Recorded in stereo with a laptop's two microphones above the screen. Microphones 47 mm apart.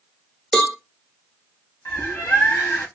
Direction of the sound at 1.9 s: 55° left (ahead or behind).